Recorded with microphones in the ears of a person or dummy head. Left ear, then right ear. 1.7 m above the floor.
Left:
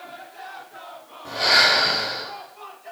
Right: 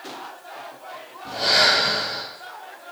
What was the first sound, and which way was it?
Breathing, 55° left (ahead or behind).